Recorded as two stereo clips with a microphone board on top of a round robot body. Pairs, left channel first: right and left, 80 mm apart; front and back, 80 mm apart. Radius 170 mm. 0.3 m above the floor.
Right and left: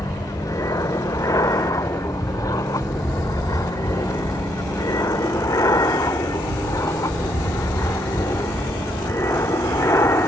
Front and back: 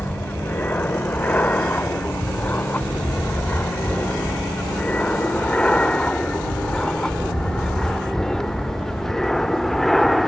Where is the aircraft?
60° right; by 10.3 s 85° right.